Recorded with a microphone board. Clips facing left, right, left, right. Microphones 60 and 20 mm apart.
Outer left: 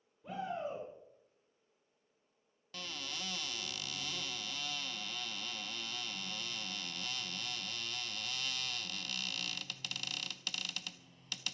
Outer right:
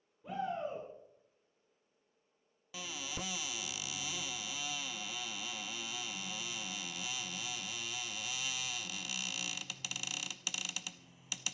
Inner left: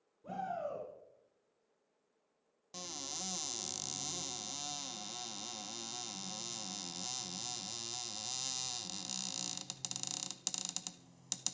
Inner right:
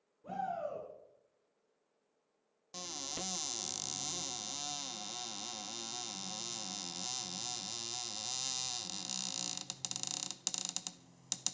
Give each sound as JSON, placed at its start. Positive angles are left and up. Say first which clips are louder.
{"t": 0.2, "sound": "a shout", "louder": "outer right 2 dB, inner right 1 dB", "side_deg": -5, "distance_m": 4.0}
{"t": 2.7, "sound": "a cupboard door", "louder": "outer right 1 dB, inner right 1 dB", "side_deg": -10, "distance_m": 0.6}